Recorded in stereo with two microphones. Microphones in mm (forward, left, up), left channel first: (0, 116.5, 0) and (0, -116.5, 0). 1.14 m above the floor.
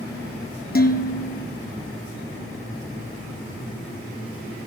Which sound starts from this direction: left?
Dishes clattering, at 0.8 s.